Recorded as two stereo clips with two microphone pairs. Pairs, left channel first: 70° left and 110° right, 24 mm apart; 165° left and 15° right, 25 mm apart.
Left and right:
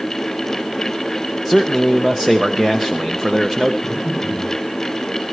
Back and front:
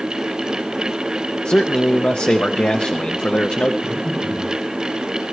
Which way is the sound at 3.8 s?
175° right.